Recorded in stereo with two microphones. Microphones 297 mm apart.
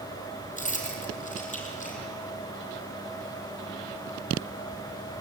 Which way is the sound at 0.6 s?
25° left (ahead or behind).